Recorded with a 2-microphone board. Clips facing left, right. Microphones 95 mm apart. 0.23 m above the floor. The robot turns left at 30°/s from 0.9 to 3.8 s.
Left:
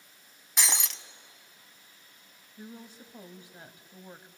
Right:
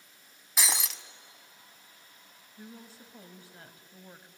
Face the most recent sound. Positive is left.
turn(degrees=20)  # may be behind; listen again after turning